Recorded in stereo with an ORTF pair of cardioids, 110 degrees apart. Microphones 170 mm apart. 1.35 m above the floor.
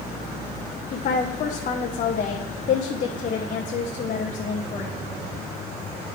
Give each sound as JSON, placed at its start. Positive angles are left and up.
{"t": 0.9, "sound": "a woman speaking", "azimuth_deg": 50, "distance_m": 0.9}